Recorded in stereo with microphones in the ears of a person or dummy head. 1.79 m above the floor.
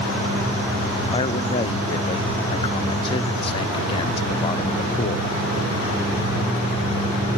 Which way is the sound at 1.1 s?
25° left (ahead or behind).